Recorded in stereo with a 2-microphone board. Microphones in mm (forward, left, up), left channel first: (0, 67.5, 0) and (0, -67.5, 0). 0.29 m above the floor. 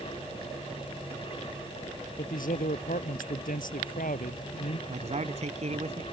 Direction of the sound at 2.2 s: 75° left (ahead or behind).